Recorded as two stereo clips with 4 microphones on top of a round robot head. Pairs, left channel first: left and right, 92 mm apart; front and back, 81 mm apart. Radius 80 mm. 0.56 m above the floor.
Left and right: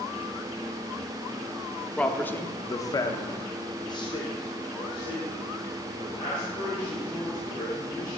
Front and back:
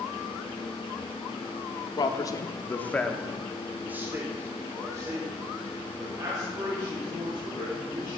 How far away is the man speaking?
About 1.2 m.